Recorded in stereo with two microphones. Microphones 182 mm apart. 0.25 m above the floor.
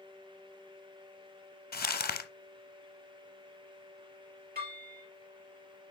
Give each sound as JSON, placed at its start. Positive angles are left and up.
{"t": 1.7, "sound": "crumpling", "side_deg": 55, "distance_m": 0.7}
{"t": 4.5, "sound": "dishes clattering", "side_deg": -55, "distance_m": 4.0}